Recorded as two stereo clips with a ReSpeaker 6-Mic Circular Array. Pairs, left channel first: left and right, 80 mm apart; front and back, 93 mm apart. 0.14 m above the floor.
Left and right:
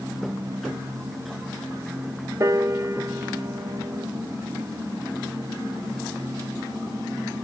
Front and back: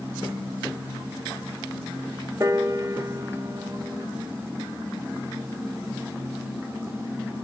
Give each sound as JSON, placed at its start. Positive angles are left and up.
{"t": 2.4, "sound": "a piano", "azimuth_deg": -130, "distance_m": 1.1}